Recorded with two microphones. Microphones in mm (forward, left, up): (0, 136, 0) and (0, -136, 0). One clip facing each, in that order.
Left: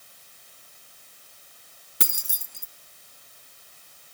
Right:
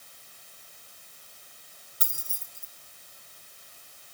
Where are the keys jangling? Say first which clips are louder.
Left 11 dB; 85° left, 0.9 m.